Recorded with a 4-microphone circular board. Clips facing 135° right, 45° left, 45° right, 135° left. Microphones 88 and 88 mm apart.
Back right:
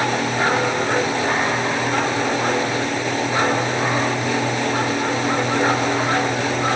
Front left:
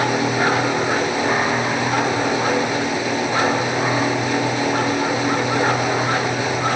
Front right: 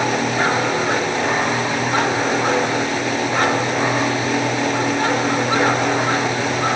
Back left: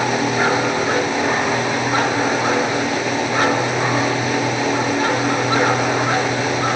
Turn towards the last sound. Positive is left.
No sound to turn to.